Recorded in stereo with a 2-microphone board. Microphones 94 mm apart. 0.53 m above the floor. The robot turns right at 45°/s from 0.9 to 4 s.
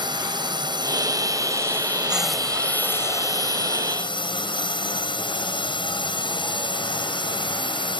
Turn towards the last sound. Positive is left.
turn(degrees=75)